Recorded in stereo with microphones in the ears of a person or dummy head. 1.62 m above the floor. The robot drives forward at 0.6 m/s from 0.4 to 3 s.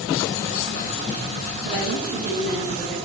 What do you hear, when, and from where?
1.6 s a woman speaking: 50° right (ahead or behind), 2.5 m; by 3.0 s 40° right (ahead or behind), 3 m